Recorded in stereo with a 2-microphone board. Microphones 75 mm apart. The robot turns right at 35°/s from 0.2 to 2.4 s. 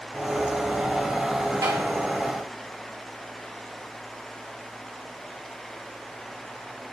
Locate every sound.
1.6 s tapping: 70° right (ahead or behind), 1.7 m; by 1.8 s 65° right (ahead or behind), 1.7 m